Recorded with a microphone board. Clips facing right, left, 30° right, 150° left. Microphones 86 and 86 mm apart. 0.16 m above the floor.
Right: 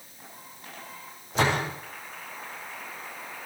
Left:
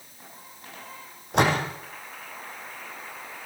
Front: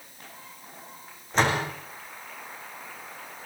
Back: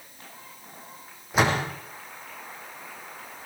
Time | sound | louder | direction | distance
1.3 | a door slam | left 3 dB, back 1 dB | 70° left | 5 m